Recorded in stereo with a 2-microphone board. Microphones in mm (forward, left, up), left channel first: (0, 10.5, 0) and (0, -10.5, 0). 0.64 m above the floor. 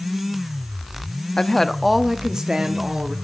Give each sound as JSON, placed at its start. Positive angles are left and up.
{"t": 1.4, "sound": "a woman speaking", "side_deg": 35, "distance_m": 0.6}